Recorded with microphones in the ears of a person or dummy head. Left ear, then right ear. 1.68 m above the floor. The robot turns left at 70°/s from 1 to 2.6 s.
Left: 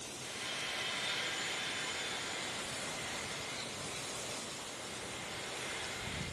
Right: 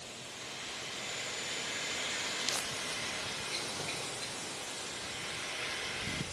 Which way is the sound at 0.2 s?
50° left.